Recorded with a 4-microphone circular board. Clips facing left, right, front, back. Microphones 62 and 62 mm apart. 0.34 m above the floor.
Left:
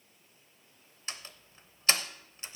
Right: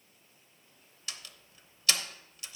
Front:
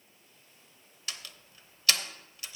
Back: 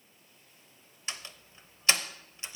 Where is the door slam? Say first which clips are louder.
Left 2 dB, back 2 dB; 130° left, 0.7 m.